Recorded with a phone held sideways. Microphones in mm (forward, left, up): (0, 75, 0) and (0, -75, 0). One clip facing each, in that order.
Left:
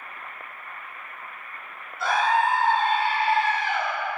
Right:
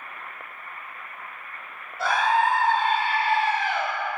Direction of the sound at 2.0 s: 85° right.